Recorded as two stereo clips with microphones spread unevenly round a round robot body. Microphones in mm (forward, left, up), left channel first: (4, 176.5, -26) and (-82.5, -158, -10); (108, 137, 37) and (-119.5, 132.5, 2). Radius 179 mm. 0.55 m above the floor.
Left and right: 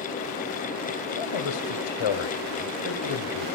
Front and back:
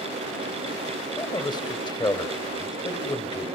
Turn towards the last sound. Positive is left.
turn(degrees=75)